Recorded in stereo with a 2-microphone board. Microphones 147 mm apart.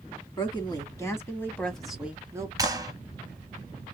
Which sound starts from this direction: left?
A woman speaking, at 0.4 s.